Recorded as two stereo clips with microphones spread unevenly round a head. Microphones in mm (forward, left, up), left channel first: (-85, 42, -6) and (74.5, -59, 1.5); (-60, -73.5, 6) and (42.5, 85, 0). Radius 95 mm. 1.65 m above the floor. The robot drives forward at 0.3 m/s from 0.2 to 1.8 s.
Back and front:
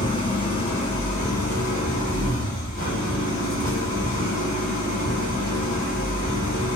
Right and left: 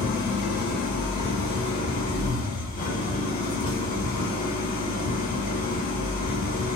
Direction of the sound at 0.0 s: 150° right.